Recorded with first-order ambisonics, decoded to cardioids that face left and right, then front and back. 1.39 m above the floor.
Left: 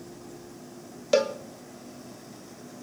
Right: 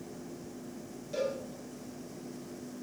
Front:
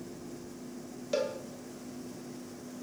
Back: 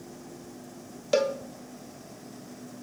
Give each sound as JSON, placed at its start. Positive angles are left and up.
{"t": 1.1, "sound": "a cowbell", "azimuth_deg": 115, "distance_m": 0.5}